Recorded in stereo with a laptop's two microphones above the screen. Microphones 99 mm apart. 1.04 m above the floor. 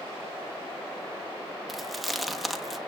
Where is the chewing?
Centre (ahead or behind), 1.3 m.